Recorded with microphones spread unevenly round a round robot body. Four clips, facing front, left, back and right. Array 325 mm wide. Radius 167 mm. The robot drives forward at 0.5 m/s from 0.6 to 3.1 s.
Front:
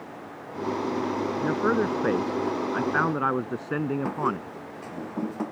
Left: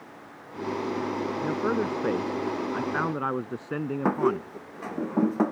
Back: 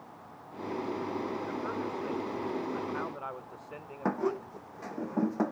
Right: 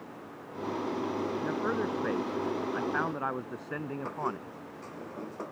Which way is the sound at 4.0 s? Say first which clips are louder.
Left 14 dB, front 3 dB; 95° left.